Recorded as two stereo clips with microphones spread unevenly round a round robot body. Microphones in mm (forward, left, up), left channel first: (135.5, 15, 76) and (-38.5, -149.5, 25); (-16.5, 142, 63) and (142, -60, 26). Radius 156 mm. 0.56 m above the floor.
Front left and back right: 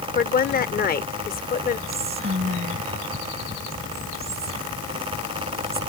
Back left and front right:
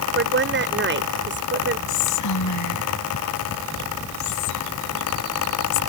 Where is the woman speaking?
15° right.